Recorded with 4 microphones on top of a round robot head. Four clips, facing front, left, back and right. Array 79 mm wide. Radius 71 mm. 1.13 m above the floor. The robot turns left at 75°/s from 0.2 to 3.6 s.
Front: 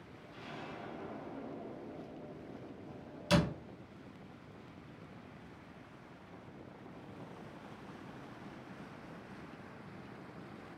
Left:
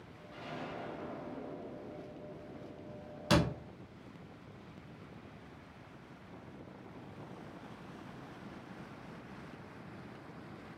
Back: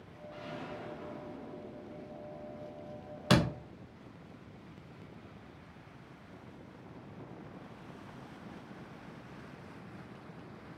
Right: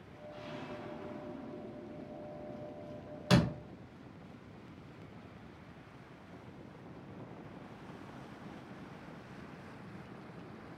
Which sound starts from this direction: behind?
A door slam, at 3.3 s.